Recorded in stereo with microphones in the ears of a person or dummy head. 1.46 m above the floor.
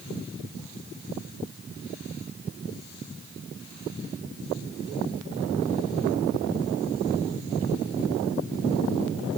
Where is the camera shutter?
I don't hear a camera shutter.